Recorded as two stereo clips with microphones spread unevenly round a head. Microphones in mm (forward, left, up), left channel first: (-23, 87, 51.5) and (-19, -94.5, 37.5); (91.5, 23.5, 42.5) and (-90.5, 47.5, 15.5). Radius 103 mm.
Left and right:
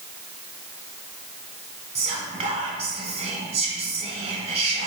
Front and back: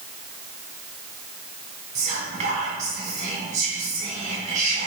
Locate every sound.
1.9 s whispering: 140° right, 1.5 m